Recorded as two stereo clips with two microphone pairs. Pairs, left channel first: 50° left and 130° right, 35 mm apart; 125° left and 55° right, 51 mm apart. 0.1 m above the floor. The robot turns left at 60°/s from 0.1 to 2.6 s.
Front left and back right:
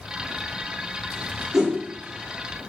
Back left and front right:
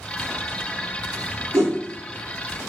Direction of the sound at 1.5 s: 50° right.